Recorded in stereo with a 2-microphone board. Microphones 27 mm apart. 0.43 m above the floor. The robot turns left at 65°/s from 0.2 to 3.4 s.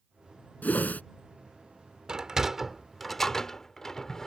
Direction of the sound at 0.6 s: 80° left.